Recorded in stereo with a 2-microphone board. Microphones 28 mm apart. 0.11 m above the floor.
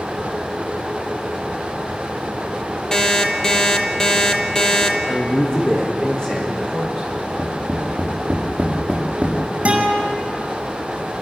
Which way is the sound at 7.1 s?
35° right (ahead or behind).